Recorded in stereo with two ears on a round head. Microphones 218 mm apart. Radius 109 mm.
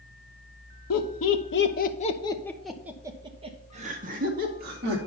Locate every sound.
0.9 s laughter: 65° left (ahead or behind), 1.4 m; by 5.0 s 40° right (ahead or behind), 2.5 m